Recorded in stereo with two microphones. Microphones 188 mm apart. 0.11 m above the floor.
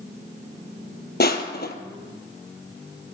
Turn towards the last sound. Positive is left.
turn(degrees=60)  # may be behind; listen again after turning